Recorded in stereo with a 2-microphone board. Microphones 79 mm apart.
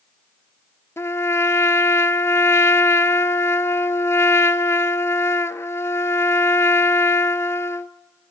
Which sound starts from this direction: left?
A trumpet, at 1.0 s.